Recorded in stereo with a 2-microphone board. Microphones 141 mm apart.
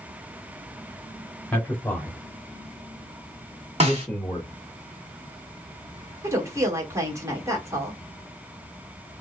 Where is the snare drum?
50° right (ahead or behind), 1.2 m.